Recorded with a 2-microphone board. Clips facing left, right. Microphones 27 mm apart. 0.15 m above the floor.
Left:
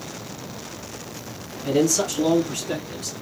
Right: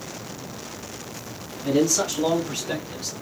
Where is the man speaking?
10° right (ahead or behind), 1.4 m; by 3.1 s 30° right (ahead or behind), 1.8 m.